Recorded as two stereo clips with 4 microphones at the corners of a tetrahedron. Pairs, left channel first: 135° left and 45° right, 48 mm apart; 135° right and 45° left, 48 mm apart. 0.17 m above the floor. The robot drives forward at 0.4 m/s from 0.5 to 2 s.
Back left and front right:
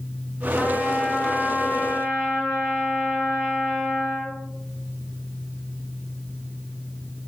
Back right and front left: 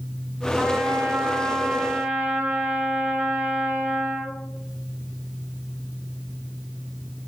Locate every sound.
0.6 s a trumpet: 65° left, 1.7 m; by 4.3 s 95° left, 1.6 m